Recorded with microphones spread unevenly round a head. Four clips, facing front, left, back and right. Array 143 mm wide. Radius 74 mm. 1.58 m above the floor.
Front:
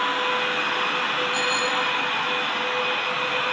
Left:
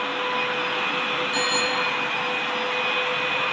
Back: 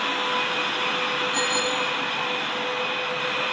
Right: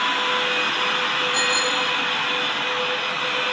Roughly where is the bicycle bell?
Left.